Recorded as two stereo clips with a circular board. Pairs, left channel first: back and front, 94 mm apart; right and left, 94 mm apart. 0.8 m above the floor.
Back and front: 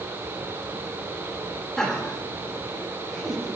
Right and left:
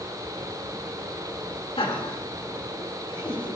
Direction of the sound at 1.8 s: 100° right.